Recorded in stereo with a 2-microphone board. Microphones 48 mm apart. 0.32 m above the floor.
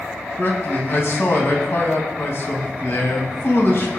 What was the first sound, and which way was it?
A man speaking, 60° left (ahead or behind).